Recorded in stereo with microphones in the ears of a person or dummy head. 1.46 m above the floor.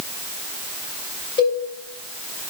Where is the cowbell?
25° left (ahead or behind), 3.5 m.